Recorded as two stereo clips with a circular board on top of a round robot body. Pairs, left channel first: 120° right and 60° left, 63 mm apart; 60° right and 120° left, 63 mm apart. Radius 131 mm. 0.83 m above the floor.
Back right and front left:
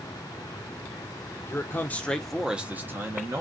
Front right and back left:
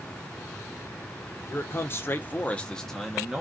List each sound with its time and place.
1.5 s a man speaking: 90° right, 0.8 m; by 3.4 s 35° left, 0.9 m